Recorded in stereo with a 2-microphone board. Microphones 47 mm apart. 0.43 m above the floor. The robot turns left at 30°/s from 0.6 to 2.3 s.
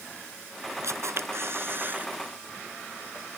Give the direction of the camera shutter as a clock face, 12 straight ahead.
3 o'clock.